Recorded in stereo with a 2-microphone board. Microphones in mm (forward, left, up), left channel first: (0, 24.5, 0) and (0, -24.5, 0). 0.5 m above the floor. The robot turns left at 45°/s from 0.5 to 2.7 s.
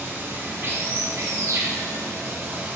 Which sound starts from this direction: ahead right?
Running water, at 0.0 s.